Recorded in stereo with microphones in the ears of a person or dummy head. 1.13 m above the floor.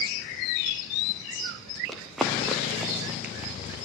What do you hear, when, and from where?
1.9 s running footsteps: centre (ahead or behind), 3.5 m; by 3.8 s 15° right (ahead or behind), 4.5 m